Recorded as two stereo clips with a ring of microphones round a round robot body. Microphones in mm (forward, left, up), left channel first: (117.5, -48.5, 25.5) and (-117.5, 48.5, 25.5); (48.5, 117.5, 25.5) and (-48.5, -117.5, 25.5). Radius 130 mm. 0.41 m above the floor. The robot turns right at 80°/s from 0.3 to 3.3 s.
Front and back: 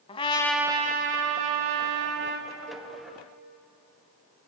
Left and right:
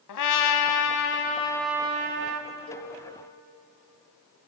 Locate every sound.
0.1 s a trumpet: 50° left, 0.8 m; by 2.5 s 135° right, 0.8 m
2.7 s a cowbell: 95° left, 3 m; by 2.9 s 115° left, 3 m